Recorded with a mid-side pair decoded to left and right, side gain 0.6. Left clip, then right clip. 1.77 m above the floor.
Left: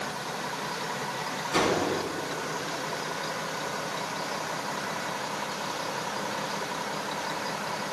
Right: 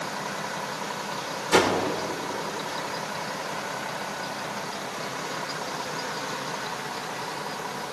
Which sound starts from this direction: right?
A whoosh, at 1.5 s.